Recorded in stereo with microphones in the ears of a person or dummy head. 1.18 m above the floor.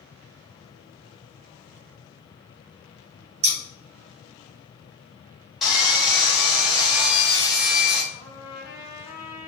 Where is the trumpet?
5° right (ahead or behind), 1.7 m.